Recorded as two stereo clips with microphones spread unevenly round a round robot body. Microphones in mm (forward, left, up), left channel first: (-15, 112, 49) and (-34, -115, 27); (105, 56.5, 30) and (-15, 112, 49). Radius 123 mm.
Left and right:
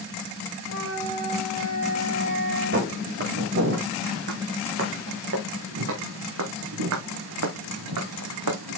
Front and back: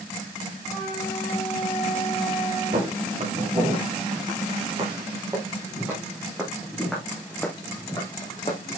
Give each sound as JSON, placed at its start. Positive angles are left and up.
{"t": 0.6, "sound": "a flute", "azimuth_deg": -105, "distance_m": 3.5}
{"t": 2.7, "sound": "footsteps", "azimuth_deg": -140, "distance_m": 5.0}